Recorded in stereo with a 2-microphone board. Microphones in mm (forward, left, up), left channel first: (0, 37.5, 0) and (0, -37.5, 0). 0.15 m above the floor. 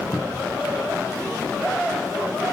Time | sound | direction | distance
0.1 | a cupboard door | 5° left (ahead or behind) | 1.7 m